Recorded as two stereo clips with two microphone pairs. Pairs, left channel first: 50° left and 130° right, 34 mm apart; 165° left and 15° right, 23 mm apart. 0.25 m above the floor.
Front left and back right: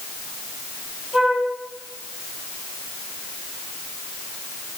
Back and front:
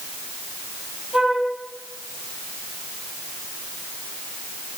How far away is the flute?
About 7.5 m.